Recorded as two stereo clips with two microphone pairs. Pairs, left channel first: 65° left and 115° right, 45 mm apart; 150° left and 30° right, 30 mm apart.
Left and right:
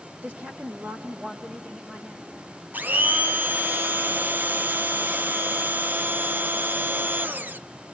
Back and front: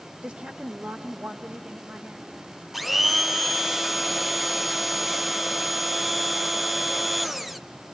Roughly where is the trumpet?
No trumpet in this recording.